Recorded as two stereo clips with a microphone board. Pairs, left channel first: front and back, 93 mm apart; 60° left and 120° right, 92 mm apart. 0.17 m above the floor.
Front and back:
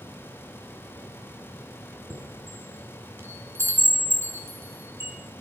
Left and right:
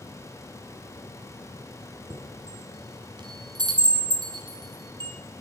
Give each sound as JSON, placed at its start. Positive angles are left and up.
{"t": 2.1, "sound": "a chime", "azimuth_deg": -125, "distance_m": 2.5}